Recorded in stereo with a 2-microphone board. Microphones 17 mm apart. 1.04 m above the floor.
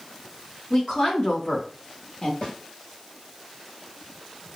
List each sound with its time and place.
0.7 s a woman speaking: 60° left (ahead or behind), 1.8 m; by 2.3 s 30° left (ahead or behind), 1.1 m
2.4 s a snare drum: 55° left (ahead or behind), 1.7 m